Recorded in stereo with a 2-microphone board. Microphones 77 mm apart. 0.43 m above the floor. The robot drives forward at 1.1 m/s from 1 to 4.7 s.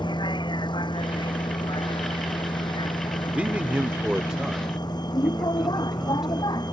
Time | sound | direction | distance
0.0 | a vehicle | 85° left | ?
3.3 | a man speaking | 20° right (ahead or behind) | ?